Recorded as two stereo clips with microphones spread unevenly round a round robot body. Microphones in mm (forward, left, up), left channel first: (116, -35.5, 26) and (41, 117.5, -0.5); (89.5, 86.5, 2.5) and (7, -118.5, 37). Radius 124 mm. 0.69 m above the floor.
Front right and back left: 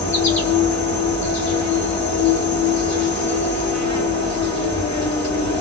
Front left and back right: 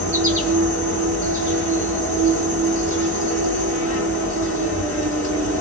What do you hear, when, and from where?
0.0 s an insect: 75° right, 1.6 m